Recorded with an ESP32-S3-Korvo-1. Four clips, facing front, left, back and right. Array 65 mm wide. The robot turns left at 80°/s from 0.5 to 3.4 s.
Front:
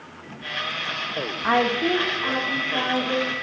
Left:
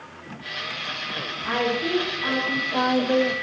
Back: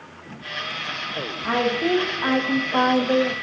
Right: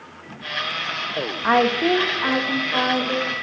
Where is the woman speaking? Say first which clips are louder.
Right 7 dB, front 1 dB; 65° right, 0.9 m; by 3.3 s 140° left, 0.9 m.